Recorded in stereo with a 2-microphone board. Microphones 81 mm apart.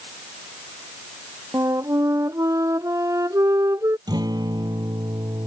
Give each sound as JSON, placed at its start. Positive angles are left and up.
{"t": 1.5, "sound": "a flute", "side_deg": -40}
{"t": 4.1, "sound": "a guitar", "side_deg": -60}